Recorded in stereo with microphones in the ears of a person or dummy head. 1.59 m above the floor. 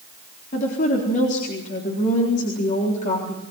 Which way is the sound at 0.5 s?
40° left (ahead or behind).